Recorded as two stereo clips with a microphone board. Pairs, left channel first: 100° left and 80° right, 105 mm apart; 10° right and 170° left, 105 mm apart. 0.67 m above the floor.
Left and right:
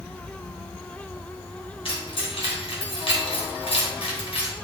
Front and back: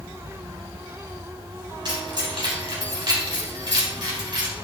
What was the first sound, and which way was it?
Keys jangling, 130° left.